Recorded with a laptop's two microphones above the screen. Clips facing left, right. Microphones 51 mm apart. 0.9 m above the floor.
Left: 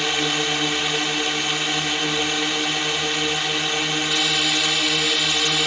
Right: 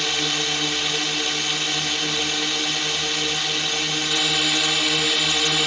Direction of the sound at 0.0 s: 15° left (ahead or behind).